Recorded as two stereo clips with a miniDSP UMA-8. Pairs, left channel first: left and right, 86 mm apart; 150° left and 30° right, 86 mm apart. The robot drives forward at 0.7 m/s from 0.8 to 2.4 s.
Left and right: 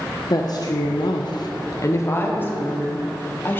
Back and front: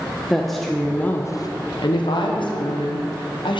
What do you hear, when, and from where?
0.3 s a woman speaking: 60° left, 0.5 m; by 3.6 s 155° left, 1.0 m